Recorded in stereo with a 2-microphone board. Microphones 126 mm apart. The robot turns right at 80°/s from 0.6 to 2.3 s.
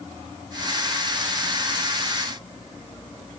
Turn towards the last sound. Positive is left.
No sound to turn to.